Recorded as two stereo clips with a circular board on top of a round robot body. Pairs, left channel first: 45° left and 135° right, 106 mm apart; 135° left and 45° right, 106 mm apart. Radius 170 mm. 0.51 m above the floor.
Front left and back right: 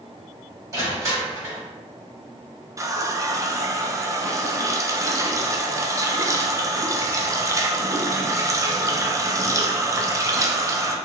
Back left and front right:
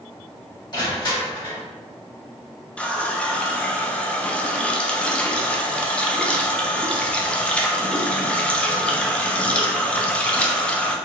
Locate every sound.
0.7 s crushing: 170° left, 1.7 m
2.8 s a running tap: 155° right, 0.6 m